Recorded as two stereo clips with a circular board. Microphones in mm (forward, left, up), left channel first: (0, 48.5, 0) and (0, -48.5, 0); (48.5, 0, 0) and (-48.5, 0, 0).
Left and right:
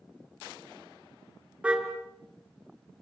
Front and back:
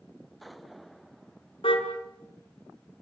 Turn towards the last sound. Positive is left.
turn(degrees=-15)